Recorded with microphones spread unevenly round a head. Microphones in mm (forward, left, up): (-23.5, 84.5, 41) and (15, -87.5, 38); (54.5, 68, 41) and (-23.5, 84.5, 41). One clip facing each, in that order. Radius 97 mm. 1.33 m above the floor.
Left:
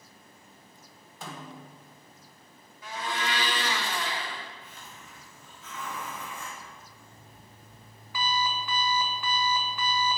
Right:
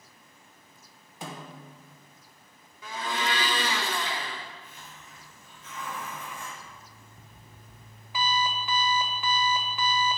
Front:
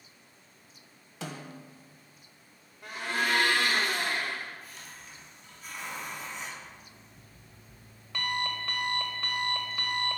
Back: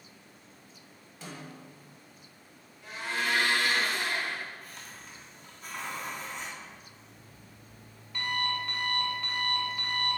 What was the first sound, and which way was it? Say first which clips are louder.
A snare drum: right 1 dB, front 3 dB; straight ahead.